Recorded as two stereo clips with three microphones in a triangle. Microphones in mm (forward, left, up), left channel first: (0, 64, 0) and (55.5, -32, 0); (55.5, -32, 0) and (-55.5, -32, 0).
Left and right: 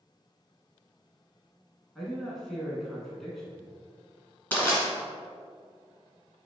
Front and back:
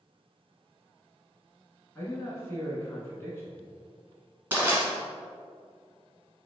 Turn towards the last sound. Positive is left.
turn(degrees=155)